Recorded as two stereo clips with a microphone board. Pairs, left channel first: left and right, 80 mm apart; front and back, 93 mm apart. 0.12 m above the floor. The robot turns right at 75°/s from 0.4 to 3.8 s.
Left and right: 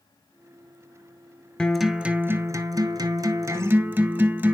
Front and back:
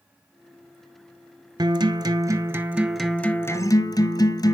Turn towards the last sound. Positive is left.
turn(degrees=-25)